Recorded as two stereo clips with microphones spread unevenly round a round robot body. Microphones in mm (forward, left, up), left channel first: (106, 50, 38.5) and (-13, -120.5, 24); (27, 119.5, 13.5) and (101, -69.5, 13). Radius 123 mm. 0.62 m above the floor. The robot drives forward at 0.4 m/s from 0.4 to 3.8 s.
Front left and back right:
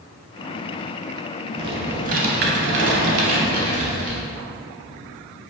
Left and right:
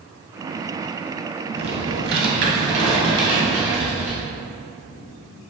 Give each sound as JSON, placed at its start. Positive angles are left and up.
{"t": 1.6, "sound": "typing on a keyboard", "azimuth_deg": -55, "distance_m": 0.6}